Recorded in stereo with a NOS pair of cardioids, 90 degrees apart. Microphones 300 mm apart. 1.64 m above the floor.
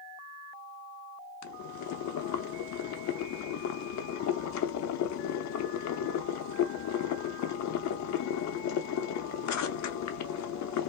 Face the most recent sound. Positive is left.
turn(degrees=60)